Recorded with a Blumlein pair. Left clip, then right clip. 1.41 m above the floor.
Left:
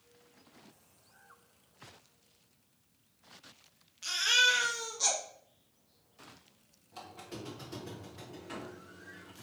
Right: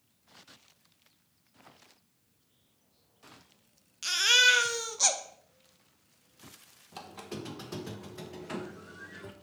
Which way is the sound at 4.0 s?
25° right.